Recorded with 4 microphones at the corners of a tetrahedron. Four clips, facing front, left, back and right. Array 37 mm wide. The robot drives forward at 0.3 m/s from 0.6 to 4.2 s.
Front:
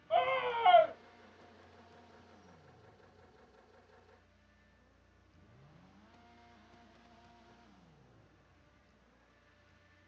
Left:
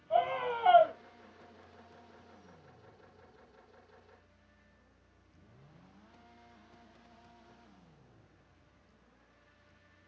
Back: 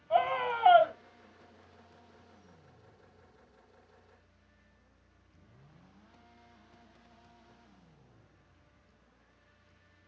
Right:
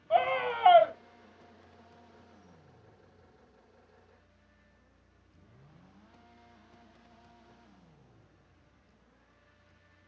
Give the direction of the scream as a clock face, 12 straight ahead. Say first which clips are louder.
Right 3 dB, back 3 dB; 3 o'clock.